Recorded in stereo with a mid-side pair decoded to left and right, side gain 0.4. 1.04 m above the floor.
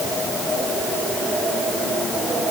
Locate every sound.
Only background noise.